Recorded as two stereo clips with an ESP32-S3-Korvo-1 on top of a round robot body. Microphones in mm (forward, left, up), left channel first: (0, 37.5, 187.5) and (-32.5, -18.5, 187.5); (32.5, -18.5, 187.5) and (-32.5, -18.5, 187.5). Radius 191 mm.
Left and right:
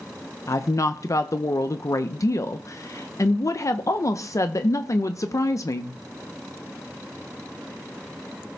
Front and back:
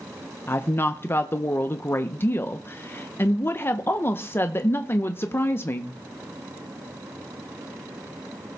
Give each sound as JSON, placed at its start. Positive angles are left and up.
{"t": 0.5, "sound": "a woman speaking", "azimuth_deg": 45, "distance_m": 0.8}